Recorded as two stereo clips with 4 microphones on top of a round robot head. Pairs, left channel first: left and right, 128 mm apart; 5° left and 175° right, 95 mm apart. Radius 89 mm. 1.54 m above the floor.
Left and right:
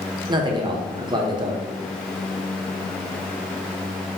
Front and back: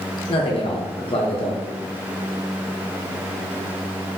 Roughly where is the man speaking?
Ahead right.